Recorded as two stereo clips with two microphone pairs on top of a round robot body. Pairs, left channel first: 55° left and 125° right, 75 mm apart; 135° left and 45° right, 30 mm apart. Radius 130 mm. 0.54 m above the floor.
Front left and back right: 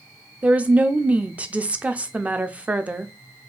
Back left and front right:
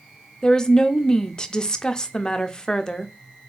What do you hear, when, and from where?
0.4 s a woman speaking: 160° left, 0.7 m